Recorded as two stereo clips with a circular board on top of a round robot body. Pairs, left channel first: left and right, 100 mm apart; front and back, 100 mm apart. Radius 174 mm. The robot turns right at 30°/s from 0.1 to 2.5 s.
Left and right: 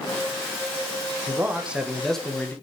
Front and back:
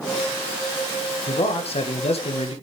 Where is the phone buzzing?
No phone buzzing in this recording.